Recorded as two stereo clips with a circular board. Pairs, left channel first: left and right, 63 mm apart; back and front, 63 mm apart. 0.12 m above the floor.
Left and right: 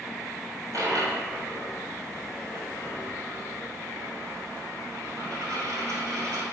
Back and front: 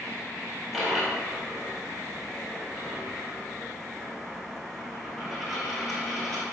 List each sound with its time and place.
0.7 s a dropped coin: 90° right, 1.4 m